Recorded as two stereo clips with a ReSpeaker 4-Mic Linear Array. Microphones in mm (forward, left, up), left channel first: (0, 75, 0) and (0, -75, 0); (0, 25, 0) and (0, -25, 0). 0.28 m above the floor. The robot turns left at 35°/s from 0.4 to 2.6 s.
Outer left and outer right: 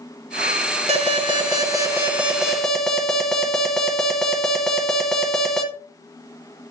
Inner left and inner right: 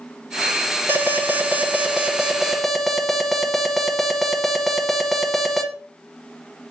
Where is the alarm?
125° right, 1.3 m; by 5.6 s 175° left, 1.3 m.